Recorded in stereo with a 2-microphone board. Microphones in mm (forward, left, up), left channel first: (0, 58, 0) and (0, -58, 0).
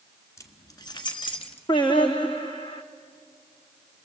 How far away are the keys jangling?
About 1.6 m.